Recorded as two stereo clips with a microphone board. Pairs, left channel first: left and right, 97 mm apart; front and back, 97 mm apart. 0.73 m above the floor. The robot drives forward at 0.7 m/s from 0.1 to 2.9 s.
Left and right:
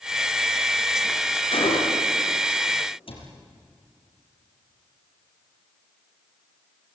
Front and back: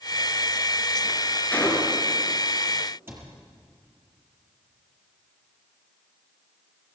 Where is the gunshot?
75° left, 4.5 m; by 2.1 s 80° left, 4.5 m.